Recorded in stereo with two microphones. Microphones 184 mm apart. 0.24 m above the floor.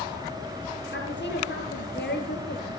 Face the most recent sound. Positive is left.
turn(degrees=70)  # may be behind; listen again after turning